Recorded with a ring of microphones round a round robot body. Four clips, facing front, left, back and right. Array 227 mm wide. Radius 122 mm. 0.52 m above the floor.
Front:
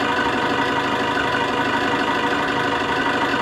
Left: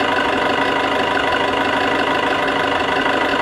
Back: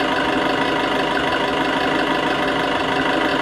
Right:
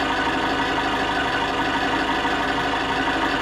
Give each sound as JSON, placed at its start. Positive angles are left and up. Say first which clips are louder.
{"t": 0.0, "sound": "an engine running", "louder": "left 5 dB, back 1 dB", "azimuth_deg": 115, "distance_m": 1.1}